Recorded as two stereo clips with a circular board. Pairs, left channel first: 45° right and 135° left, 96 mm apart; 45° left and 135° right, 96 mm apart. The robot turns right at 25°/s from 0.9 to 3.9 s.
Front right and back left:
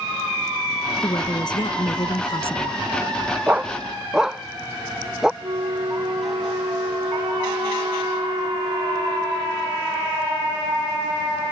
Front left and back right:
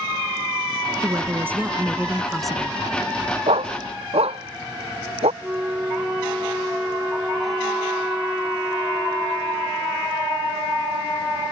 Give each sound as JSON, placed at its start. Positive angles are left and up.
{"t": 1.0, "sound": "a woman speaking", "azimuth_deg": -80}
{"t": 3.5, "sound": "a dog barking", "azimuth_deg": -150}
{"t": 5.4, "sound": "a flute", "azimuth_deg": 150}